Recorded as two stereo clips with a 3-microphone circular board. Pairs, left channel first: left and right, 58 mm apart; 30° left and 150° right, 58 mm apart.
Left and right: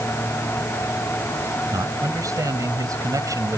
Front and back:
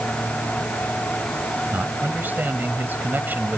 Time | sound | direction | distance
1.7 | a man speaking | 95° right | ?